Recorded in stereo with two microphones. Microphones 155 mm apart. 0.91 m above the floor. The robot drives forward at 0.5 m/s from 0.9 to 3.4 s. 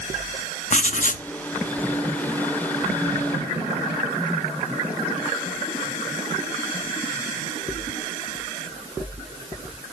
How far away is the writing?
About 0.5 m.